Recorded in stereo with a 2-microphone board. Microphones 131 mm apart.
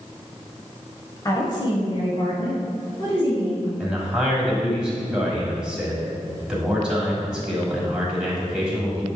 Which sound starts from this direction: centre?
A man speaking, at 3.8 s.